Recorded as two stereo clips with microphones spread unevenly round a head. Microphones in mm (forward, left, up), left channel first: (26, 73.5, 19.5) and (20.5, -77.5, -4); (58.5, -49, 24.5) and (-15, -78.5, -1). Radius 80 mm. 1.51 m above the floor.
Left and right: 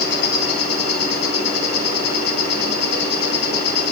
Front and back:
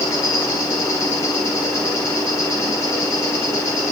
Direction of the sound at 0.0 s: 80° left.